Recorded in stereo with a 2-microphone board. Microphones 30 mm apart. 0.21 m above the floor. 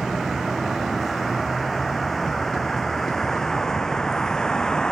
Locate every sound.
0.0 s a vehicle: 5° right (ahead or behind); by 4.9 s 25° left (ahead or behind)